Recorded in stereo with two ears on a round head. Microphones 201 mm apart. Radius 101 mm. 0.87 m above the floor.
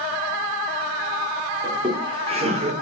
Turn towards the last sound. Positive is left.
turn(degrees=-35)  # may be behind; listen again after turning